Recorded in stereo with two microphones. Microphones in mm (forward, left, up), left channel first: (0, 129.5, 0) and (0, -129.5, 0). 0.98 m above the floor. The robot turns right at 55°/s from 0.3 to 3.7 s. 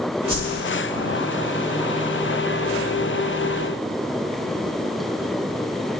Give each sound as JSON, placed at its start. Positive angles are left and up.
{"t": 0.3, "sound": "a whoosh", "side_deg": 75, "distance_m": 2.5}